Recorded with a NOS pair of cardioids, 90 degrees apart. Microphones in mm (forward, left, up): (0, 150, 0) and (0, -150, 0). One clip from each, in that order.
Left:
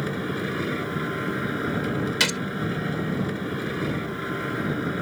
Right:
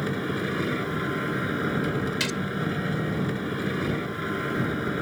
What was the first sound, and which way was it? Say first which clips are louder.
A machine running: even; 10° right.